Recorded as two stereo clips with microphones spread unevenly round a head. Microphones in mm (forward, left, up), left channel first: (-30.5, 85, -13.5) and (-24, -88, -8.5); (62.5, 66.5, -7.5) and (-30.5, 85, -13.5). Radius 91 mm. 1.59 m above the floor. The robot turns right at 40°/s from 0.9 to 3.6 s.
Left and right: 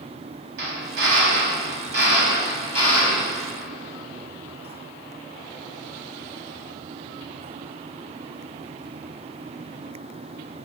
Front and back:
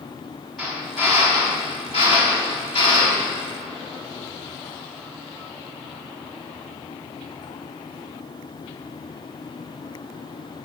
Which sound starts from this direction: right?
A drill, at 0.6 s.